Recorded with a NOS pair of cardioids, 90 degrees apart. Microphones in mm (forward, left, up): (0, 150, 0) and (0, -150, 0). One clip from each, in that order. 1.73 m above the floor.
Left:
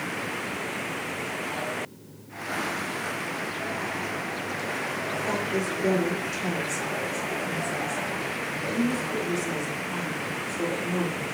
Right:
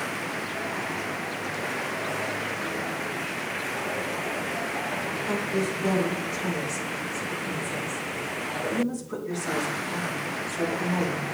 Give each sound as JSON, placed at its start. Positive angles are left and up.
{"t": 5.3, "sound": "a woman speaking", "azimuth_deg": 30, "distance_m": 1.9}